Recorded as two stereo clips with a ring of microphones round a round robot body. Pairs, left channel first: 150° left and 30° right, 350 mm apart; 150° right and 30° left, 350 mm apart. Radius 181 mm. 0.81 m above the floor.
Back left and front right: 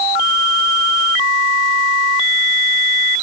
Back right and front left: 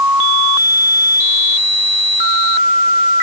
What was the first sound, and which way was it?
Only background noise.